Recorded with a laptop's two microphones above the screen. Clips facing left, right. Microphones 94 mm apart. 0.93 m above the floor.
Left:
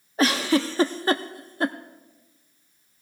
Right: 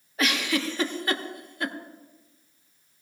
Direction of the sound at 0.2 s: 35° left (ahead or behind).